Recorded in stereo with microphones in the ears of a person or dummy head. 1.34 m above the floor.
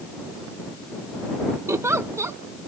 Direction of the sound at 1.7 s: 15° right (ahead or behind).